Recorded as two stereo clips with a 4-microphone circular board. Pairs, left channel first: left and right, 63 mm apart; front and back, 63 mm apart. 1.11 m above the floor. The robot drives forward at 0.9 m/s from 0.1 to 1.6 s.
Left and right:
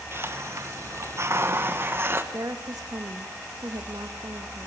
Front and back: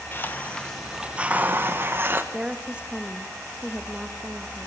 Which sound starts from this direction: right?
A woman speaking, at 2.3 s.